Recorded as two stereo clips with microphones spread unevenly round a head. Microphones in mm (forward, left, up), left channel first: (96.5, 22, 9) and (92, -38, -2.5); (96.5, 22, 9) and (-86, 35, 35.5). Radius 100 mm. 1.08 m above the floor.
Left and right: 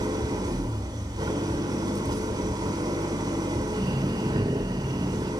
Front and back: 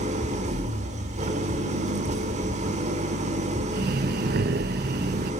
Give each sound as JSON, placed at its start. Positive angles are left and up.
{"t": 0.0, "sound": "an engine running", "azimuth_deg": -130, "distance_m": 1.7}
{"t": 3.7, "sound": "breathing", "azimuth_deg": -140, "distance_m": 0.6}